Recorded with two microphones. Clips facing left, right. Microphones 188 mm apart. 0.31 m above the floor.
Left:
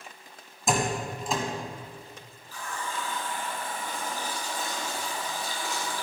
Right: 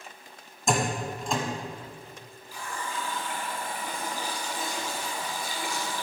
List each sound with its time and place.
0.7 s a door slam: centre (ahead or behind), 1.3 m
2.5 s a running tap: 15° right (ahead or behind), 2 m